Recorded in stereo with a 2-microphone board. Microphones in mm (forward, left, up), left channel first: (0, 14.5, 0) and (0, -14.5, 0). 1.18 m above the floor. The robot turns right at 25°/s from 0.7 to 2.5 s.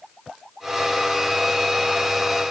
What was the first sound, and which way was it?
Only background noise.